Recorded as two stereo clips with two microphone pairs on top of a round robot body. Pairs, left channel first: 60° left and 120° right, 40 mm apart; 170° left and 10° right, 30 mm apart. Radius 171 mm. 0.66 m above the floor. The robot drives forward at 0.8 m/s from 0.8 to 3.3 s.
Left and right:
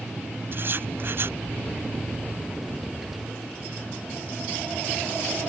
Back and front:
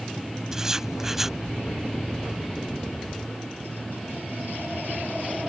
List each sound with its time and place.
0.5 s writing: 85° right; by 1.4 s 95° right